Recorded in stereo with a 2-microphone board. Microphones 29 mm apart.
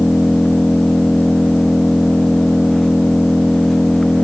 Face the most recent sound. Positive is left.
turn(degrees=10)  # may be behind; listen again after turning